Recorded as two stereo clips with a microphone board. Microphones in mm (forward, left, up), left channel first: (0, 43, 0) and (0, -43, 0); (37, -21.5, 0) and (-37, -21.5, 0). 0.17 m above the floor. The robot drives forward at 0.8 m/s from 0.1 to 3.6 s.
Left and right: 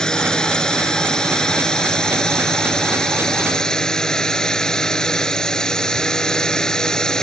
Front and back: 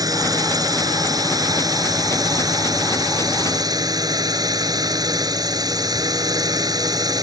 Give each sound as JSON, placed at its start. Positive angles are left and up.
{"t": 0.0, "sound": "a drone", "azimuth_deg": 170}